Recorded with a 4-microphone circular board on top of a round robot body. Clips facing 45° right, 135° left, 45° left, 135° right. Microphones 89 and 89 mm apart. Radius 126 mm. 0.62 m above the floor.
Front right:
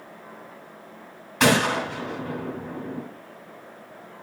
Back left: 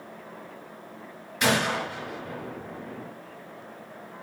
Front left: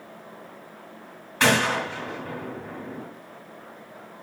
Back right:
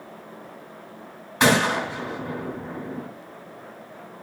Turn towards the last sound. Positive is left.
turn(degrees=-65)